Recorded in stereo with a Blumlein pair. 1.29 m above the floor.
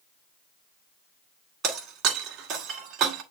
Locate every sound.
1.6 s breaking glass: 35° right, 1.8 m